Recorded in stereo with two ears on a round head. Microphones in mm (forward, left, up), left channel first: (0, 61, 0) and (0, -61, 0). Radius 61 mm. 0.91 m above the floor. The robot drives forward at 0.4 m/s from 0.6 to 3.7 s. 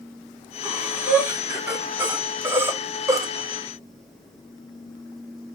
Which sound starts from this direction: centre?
Breathing, at 0.6 s.